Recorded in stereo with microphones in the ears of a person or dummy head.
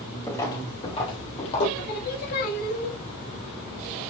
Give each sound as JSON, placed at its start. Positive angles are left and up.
{"t": 0.3, "sound": "footsteps", "side_deg": 15, "distance_m": 2.5}
{"t": 1.8, "sound": "singing", "side_deg": 50, "distance_m": 1.8}